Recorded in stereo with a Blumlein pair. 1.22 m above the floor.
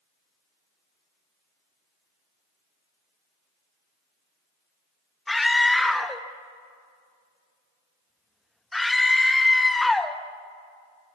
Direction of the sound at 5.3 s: 5° left.